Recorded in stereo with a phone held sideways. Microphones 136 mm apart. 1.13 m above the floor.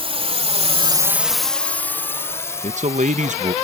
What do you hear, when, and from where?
0.0 s a drone: 45° right (ahead or behind); by 3.6 s 25° left (ahead or behind)
2.6 s a man speaking: 65° right (ahead or behind)